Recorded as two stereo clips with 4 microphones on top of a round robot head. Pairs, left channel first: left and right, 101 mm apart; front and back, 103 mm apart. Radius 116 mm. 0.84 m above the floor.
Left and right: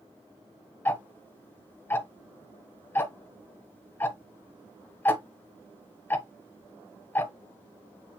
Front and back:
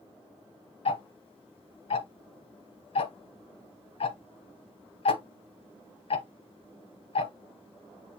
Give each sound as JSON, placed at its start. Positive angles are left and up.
{"t": 0.8, "sound": "ticking", "azimuth_deg": 20, "distance_m": 0.9}